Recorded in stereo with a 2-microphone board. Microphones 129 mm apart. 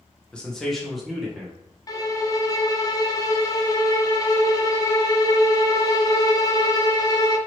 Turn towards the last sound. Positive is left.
turn(degrees=30)  # may be behind; listen again after turning